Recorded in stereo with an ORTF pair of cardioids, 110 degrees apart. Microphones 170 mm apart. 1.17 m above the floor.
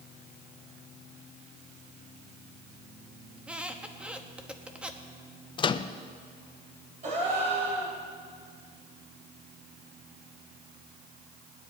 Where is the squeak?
5° right, 1.0 m.